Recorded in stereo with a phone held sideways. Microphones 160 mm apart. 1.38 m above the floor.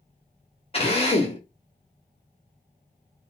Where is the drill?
35° left (ahead or behind), 0.8 m.